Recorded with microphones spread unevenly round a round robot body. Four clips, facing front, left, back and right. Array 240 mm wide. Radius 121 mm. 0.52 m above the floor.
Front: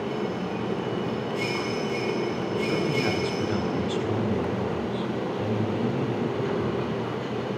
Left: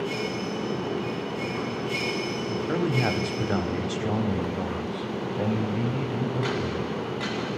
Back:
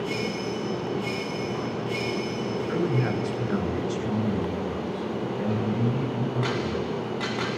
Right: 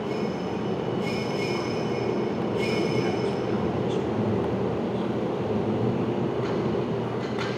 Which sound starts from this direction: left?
A man speaking, at 2.7 s.